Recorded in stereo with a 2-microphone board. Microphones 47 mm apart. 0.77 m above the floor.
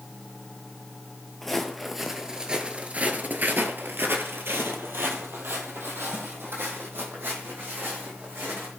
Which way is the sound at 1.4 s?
5° left (ahead or behind).